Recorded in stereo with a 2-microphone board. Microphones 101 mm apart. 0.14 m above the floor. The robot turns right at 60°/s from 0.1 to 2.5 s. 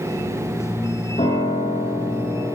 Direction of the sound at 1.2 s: 85° left.